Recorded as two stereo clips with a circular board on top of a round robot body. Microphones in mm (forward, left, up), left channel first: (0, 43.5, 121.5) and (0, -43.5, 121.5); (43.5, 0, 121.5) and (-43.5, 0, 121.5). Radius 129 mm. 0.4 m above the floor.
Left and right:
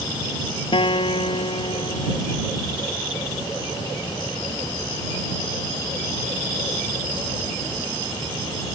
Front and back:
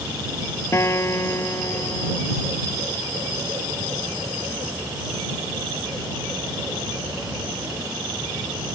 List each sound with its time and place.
0.7 s a guitar: 60° left